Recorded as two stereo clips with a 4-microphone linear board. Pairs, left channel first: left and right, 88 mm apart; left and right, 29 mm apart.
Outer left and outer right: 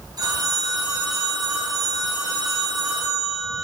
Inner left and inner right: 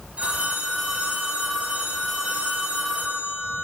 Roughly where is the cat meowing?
I don't hear a cat meowing.